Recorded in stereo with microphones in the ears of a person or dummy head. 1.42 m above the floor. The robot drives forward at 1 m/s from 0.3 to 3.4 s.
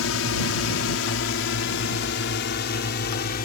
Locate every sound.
0.0 s a drone: 70° left (ahead or behind); by 3.5 s 50° left (ahead or behind)